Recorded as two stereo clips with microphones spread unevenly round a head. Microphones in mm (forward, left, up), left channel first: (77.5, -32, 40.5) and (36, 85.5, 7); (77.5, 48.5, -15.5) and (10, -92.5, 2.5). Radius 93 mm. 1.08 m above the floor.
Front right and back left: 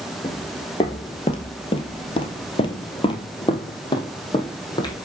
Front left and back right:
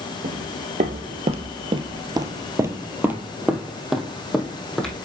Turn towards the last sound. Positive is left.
turn(degrees=-20)